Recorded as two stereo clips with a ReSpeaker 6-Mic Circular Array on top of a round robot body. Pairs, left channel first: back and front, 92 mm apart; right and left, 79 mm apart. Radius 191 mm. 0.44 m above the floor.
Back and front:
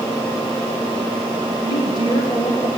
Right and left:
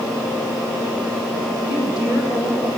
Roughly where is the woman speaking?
Behind right.